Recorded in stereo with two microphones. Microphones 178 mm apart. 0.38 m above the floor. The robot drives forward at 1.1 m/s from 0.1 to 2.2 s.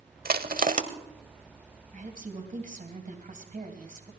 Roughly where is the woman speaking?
Right.